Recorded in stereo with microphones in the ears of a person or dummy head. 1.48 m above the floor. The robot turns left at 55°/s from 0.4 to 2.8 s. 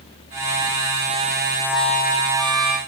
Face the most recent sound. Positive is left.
turn(degrees=50)